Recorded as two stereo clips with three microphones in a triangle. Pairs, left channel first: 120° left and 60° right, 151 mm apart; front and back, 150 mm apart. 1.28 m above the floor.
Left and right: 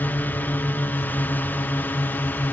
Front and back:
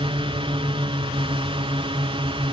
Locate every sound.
0.0 s a drone: 170° right